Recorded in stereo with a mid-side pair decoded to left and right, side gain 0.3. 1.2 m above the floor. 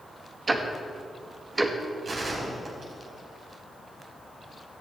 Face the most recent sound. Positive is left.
turn(degrees=-55)